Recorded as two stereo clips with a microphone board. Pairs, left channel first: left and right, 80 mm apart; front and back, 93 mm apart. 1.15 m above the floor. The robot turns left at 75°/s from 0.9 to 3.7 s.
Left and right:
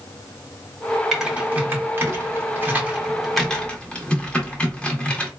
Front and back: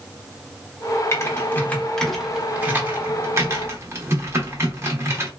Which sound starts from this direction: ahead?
Typing on a keyboard, at 1.1 s.